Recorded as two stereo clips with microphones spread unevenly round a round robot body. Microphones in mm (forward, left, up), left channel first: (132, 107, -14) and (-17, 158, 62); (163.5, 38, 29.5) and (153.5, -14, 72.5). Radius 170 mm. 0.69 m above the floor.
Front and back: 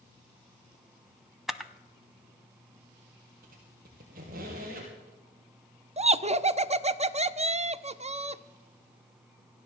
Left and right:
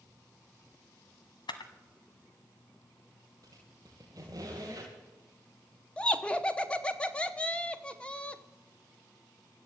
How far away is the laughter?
About 0.9 m.